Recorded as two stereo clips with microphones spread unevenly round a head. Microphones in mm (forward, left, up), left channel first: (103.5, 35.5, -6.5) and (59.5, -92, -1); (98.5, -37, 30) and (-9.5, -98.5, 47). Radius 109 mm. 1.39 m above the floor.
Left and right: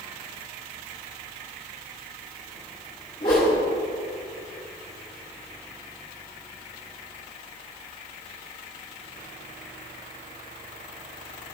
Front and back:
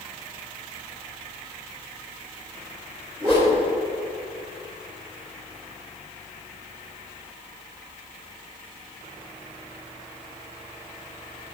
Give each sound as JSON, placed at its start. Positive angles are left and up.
{"t": 3.2, "sound": "a whoosh", "azimuth_deg": 140, "distance_m": 2.5}